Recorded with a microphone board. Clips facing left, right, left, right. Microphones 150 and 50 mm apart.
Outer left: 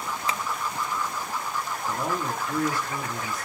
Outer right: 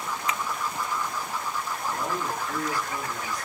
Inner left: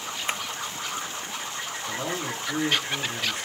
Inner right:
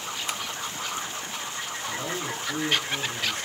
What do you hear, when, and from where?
0.3 s tapping: 30° left (ahead or behind), 0.7 m
1.9 s a man speaking: 25° left (ahead or behind), 8 m